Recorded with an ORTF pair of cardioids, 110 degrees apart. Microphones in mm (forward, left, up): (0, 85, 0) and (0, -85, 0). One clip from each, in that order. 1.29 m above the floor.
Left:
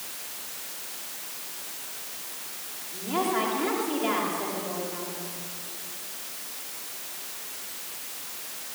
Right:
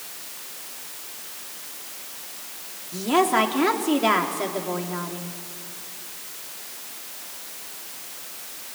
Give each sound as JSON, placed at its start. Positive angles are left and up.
{"t": 2.9, "sound": "a woman speaking", "azimuth_deg": -55, "distance_m": 3.0}